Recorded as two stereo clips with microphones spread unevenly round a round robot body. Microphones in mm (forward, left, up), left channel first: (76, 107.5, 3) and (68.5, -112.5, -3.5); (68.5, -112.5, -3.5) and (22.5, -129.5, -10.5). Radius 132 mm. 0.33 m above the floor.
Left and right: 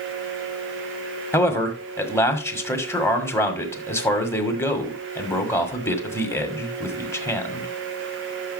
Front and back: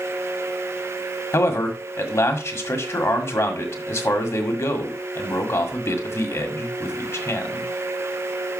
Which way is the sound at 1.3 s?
10° left.